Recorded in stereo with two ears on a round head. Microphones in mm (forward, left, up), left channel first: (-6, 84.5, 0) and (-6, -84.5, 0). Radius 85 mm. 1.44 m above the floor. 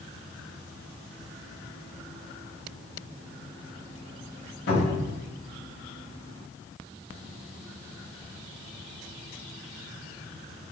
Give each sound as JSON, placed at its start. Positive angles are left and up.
{"t": 4.7, "sound": "a cupboard door", "side_deg": 55, "distance_m": 1.3}